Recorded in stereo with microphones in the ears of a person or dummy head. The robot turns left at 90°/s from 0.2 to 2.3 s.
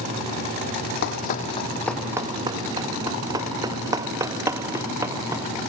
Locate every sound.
1.0 s running footsteps: 60° left (ahead or behind); by 5.5 s 15° right (ahead or behind)